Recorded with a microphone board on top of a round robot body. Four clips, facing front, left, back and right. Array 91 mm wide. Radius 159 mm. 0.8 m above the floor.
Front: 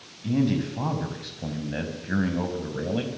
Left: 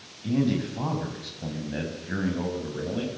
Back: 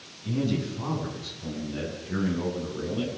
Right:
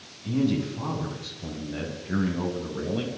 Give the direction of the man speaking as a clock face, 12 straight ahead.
11 o'clock.